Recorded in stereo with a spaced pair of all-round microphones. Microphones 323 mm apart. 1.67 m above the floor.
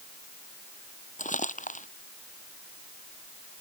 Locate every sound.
1.2 s crumpling: 25° left (ahead or behind)